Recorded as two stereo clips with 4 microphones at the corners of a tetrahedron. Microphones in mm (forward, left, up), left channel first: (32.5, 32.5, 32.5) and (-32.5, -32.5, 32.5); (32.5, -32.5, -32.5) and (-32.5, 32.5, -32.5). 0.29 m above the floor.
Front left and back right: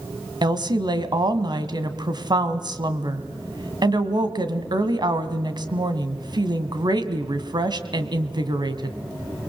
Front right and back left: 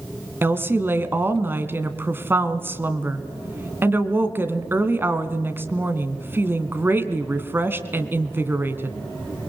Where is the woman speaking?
160° right, 2.0 m.